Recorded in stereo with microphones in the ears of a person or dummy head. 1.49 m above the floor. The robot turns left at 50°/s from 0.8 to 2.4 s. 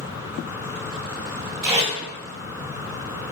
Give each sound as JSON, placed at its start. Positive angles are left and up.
{"t": 1.6, "sound": "tape being pulled", "side_deg": -10, "distance_m": 1.8}